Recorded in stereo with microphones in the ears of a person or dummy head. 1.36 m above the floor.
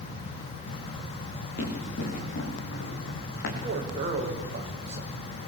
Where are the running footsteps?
60° left (ahead or behind), 8.5 m.